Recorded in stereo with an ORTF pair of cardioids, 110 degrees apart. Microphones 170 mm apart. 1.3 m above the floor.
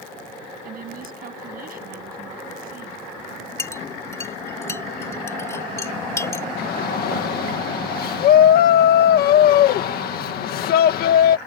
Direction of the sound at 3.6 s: 15° left.